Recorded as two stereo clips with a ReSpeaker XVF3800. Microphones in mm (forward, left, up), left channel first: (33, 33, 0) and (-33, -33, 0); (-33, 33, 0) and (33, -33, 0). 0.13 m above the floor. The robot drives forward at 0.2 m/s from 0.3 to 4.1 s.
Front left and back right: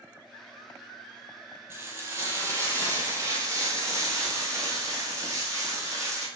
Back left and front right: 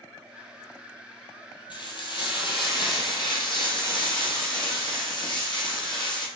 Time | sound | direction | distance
1.7 | frying | 160° left | 0.9 m